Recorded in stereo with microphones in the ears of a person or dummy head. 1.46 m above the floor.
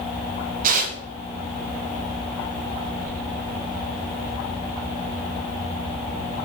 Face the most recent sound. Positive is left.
turn(degrees=-50)  # may be behind; listen again after turning